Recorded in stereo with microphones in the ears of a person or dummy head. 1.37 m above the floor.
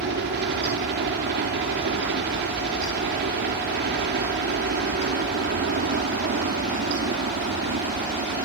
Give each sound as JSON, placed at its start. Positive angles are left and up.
{"t": 0.0, "sound": "a helicopter", "side_deg": -60}